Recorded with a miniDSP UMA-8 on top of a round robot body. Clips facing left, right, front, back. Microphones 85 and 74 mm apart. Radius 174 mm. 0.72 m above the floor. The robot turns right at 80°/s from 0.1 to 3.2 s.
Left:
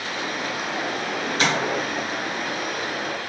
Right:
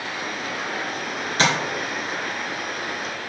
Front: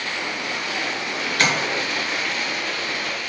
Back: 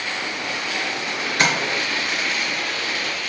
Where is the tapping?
115° right, 2.5 m; by 1.5 s 105° right, 2.5 m.